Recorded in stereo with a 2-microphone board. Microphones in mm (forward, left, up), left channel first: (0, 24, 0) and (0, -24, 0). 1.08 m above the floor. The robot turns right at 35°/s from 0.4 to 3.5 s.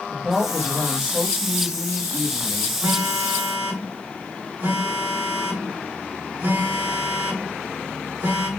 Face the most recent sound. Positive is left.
turn(degrees=-65)  # may be behind; listen again after turning